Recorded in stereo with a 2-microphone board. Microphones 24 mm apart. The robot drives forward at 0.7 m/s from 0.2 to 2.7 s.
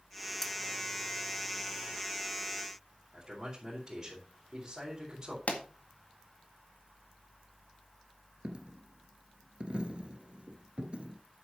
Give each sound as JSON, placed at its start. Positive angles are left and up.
{"t": 0.4, "sound": "cutlery clinking", "side_deg": 10, "distance_m": 1.3}
{"t": 3.1, "sound": "a man speaking", "side_deg": -25, "distance_m": 4.5}
{"t": 5.5, "sound": "a pop", "side_deg": 85, "distance_m": 1.8}
{"t": 8.4, "sound": "a dropped coin", "side_deg": -50, "distance_m": 1.6}